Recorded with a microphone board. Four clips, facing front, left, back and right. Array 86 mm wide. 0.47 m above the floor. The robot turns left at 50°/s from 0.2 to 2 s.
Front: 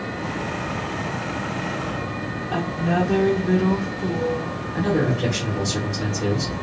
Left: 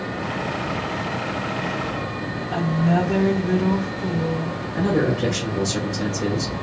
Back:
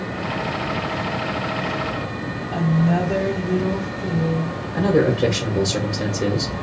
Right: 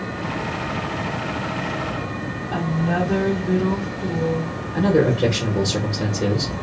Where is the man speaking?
125° right, 0.9 m.